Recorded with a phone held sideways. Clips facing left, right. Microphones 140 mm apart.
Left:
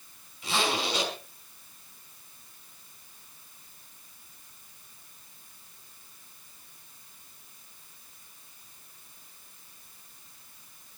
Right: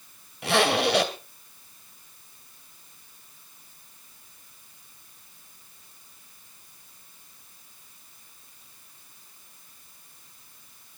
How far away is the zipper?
About 2.5 m.